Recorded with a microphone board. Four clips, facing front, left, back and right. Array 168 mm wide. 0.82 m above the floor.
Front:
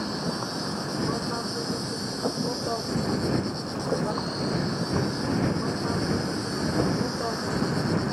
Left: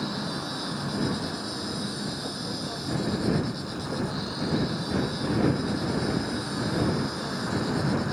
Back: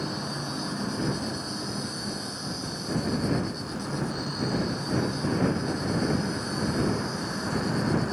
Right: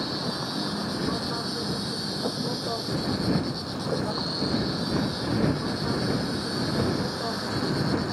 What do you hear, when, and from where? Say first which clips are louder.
0.0 s an insect: right 1 dB, front 3 dB; 30° right